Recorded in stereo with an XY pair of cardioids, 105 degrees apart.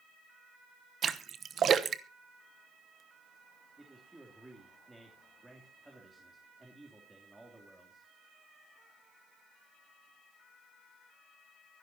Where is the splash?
50° right, 1.0 m.